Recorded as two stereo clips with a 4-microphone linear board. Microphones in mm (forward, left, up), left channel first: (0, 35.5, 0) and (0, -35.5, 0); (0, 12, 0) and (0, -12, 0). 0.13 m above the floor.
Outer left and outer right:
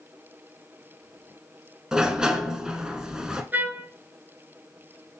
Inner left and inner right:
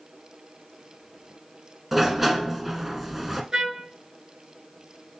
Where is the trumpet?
30° right (ahead or behind), 0.9 m.